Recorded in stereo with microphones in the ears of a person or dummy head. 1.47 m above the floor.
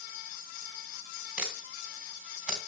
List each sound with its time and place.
1.4 s a camera shutter: 10° right (ahead or behind), 3 m